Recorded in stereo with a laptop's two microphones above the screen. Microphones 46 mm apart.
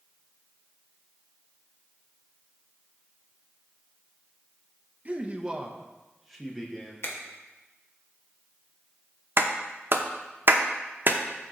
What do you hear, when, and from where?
5.0 s a man speaking: 30° right (ahead or behind), 0.7 m; by 6.9 s 10° left (ahead or behind), 1.3 m
7.0 s a finger snap: 60° left (ahead or behind), 1.2 m
9.4 s a clap: 50° right (ahead or behind), 0.7 m